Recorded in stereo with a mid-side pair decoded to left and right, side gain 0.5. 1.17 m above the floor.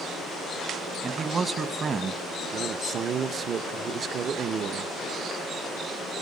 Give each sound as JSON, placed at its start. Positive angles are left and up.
{"t": 1.0, "sound": "a man speaking", "azimuth_deg": -40, "distance_m": 1.2}
{"t": 2.5, "sound": "a man speaking", "azimuth_deg": -50, "distance_m": 0.7}